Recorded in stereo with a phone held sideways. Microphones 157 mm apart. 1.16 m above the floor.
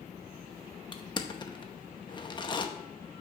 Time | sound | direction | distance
0.9 | crushing | 30° left (ahead or behind) | 0.7 m